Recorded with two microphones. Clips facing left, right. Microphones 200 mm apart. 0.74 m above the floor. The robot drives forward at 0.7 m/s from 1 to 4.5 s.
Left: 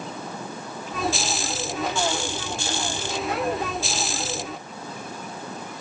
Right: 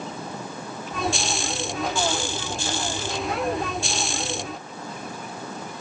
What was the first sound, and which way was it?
Only background noise.